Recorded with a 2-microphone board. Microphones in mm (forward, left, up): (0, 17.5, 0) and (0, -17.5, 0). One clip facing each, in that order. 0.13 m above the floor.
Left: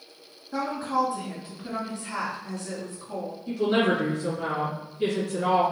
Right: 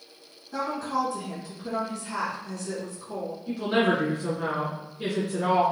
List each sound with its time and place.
0.5 s a woman speaking: 20° left (ahead or behind), 1.1 m
3.5 s a woman speaking: 15° right (ahead or behind), 1.5 m